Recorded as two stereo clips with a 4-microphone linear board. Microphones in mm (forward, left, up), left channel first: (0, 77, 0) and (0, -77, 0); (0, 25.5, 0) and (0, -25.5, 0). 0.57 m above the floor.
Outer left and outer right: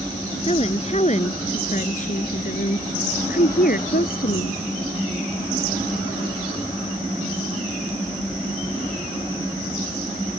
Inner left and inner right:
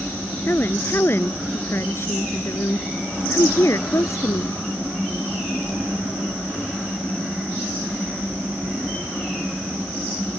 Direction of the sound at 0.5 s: 45° left (ahead or behind).